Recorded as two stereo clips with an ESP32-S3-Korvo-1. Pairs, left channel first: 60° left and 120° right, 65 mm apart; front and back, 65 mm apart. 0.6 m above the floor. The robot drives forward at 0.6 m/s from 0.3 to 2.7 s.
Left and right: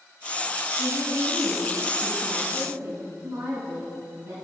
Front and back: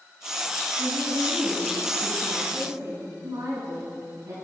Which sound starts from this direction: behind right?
A woman speaking, at 0.8 s.